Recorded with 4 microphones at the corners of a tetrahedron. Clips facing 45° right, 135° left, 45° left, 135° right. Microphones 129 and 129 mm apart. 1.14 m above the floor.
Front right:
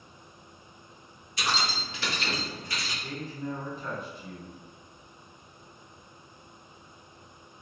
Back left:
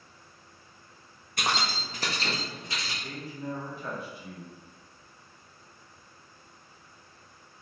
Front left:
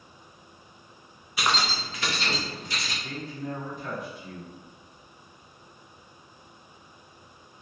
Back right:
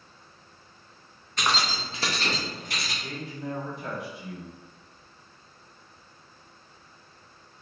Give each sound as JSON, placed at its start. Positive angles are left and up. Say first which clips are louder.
{"t": 1.4, "sound": "keys jangling", "louder": "back left 1 dB, even", "azimuth_deg": 125, "distance_m": 0.5}
{"t": 3.0, "sound": "a man speaking", "louder": "front right 3 dB, even", "azimuth_deg": -145, "distance_m": 1.4}